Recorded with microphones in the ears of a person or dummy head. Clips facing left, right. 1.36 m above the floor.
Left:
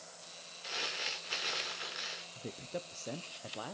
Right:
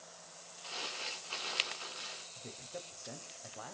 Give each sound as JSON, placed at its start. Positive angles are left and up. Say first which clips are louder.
{"t": 0.6, "sound": "crumpling", "louder": "left 2 dB", "side_deg": 25, "distance_m": 1.5}
{"t": 2.4, "sound": "a man speaking", "louder": "left 6 dB", "side_deg": 50, "distance_m": 0.7}